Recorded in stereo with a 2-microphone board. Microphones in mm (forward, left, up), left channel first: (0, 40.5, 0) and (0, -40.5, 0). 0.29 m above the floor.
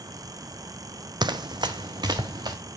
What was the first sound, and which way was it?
Running footsteps, 65° right (ahead or behind).